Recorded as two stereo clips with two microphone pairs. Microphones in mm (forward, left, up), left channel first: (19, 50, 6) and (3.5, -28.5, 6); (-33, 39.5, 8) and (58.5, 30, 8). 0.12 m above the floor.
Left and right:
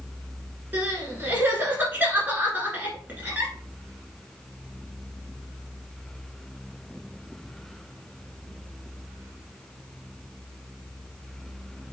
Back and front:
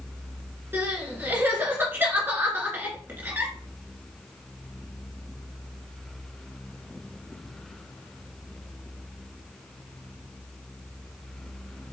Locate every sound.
0.7 s crying: 55° right, 1.6 m